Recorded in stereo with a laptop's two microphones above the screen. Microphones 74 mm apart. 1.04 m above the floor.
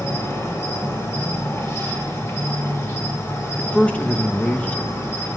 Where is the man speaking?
15° left (ahead or behind), 0.8 m.